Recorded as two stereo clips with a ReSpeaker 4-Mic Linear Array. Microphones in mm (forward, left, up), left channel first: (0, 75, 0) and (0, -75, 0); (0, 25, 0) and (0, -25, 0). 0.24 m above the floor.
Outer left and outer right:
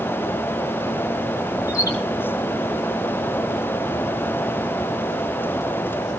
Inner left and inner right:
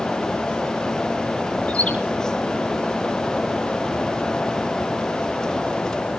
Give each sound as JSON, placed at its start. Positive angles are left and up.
{"t": 1.7, "sound": "a bird", "side_deg": 25, "distance_m": 2.5}